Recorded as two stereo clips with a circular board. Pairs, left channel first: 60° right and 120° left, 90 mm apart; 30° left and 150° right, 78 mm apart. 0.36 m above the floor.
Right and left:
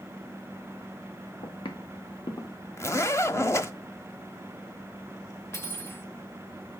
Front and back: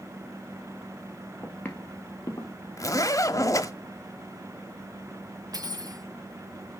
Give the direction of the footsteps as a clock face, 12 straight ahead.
1 o'clock.